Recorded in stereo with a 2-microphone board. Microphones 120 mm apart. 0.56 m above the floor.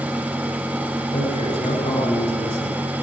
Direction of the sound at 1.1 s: 75° left (ahead or behind).